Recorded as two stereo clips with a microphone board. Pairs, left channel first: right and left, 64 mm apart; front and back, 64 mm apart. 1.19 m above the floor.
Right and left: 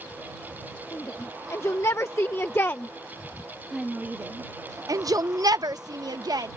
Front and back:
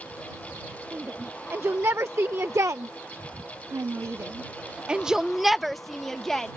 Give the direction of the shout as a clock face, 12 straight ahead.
4 o'clock.